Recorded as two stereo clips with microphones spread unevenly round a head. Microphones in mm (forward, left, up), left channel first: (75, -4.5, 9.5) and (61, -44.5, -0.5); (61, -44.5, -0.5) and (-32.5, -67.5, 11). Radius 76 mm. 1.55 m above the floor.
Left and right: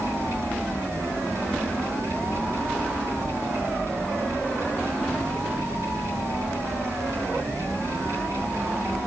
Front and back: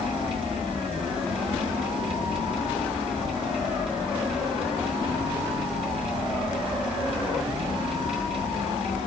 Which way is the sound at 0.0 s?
145° right.